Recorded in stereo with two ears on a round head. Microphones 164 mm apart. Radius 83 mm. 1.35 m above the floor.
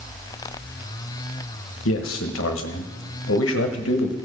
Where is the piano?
I don't hear a piano.